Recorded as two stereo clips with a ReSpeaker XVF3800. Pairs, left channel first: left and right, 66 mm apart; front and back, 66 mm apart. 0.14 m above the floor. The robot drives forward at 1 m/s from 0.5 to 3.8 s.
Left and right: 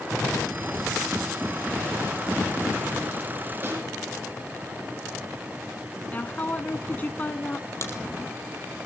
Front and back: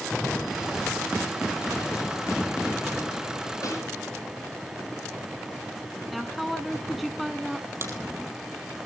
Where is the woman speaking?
90° left, 1.1 m.